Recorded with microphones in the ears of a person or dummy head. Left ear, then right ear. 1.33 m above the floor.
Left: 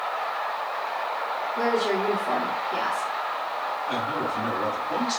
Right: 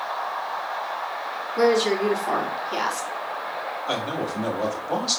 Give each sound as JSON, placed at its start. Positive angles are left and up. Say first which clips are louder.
{"t": 1.6, "sound": "a woman speaking", "louder": "right 5 dB", "side_deg": -55, "distance_m": 2.5}
{"t": 3.9, "sound": "a man speaking", "louder": "right 2 dB", "side_deg": -60, "distance_m": 2.5}